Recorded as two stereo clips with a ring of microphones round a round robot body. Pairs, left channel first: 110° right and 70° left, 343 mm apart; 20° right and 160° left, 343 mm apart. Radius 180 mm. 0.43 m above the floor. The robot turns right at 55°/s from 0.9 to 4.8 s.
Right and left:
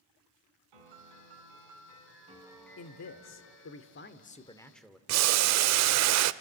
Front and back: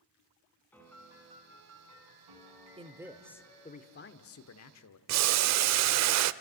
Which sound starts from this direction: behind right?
A man speaking, at 2.8 s.